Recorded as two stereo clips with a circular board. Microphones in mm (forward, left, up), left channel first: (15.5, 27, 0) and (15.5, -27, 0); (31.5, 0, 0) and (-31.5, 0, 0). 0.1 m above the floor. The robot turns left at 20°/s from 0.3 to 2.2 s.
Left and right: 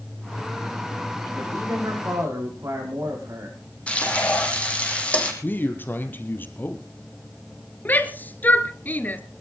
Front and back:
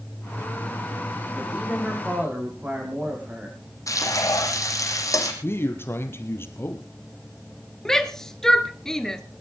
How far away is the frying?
About 4 m.